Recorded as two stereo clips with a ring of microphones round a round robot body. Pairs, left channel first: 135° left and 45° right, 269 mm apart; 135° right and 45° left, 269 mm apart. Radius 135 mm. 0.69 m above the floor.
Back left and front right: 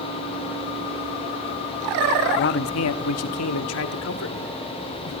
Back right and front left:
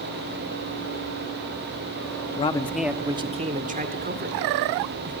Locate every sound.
2.4 s a man speaking: 170° left, 0.8 m; by 5.1 s 95° left, 3 m